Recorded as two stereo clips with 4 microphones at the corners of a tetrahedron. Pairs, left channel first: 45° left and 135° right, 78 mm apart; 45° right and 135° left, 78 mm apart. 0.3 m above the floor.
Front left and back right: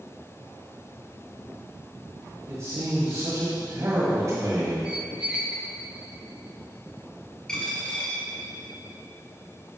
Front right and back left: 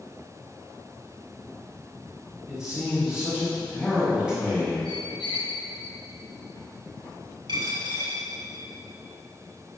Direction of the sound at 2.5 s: 150° right.